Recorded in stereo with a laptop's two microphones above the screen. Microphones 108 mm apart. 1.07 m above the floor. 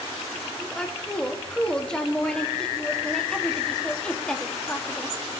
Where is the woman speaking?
5° left (ahead or behind), 2.5 m.